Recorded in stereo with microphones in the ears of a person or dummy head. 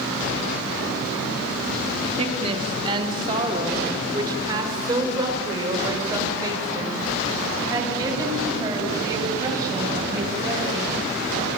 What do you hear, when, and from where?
2.2 s a woman speaking: 20° right (ahead or behind), 3 m; by 10.8 s 15° right (ahead or behind), 9.5 m